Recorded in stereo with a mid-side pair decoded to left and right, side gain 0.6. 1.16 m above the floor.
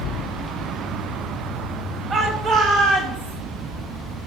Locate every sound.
2.1 s a shout: 40° right, 2.5 m; by 3.4 s 75° right, 3 m